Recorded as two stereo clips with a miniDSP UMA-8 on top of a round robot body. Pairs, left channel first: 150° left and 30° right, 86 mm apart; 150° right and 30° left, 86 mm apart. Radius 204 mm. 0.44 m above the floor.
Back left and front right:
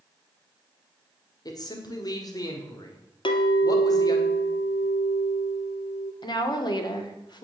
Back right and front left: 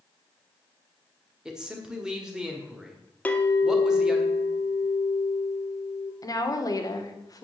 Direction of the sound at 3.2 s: 140° left.